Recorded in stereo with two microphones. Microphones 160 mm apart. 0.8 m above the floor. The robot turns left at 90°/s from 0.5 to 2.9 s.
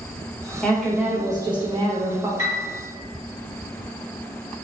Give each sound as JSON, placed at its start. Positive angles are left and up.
{"t": 0.6, "sound": "a woman speaking", "azimuth_deg": 15, "distance_m": 0.7}
{"t": 2.4, "sound": "a piano", "side_deg": -25, "distance_m": 1.4}